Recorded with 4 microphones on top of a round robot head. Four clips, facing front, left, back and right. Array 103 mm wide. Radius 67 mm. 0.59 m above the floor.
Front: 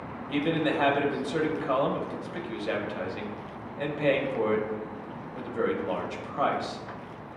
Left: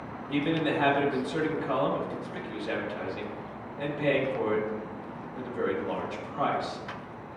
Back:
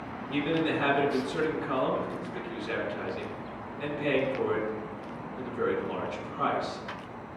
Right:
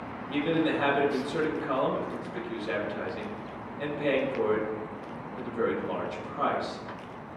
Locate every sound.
0.3 s a man speaking: 5° left, 3 m